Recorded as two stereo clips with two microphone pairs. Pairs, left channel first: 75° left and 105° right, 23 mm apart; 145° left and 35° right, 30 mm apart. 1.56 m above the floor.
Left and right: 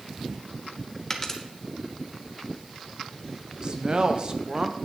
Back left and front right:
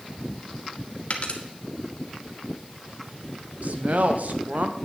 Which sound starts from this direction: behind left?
A dropped coin, at 1.1 s.